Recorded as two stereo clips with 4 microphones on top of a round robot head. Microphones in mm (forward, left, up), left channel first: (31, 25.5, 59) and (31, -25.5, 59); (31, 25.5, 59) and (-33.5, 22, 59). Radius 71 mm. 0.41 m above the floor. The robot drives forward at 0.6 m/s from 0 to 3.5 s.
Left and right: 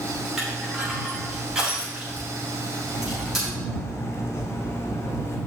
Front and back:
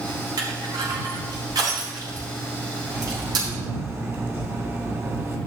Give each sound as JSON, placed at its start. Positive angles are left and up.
{"t": 0.4, "sound": "crushing", "azimuth_deg": -160, "distance_m": 3.0}
{"t": 2.9, "sound": "cutlery clinking", "azimuth_deg": 125, "distance_m": 1.8}